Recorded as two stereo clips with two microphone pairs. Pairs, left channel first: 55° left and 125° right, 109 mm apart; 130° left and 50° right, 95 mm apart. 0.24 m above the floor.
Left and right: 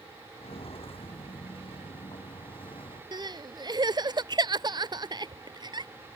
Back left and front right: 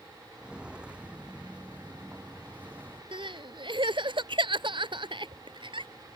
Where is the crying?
75° right.